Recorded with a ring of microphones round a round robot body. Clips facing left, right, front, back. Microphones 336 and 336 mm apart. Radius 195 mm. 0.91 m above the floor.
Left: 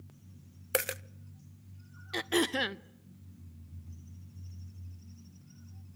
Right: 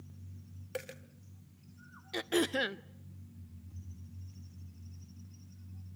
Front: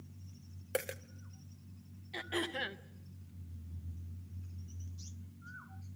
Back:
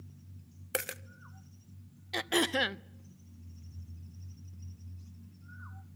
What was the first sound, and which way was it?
A dropped coin, 110° left.